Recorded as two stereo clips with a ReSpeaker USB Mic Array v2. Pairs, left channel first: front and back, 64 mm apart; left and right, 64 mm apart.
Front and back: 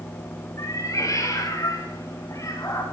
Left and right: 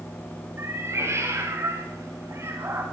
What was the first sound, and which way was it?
A cat meowing, 45° right.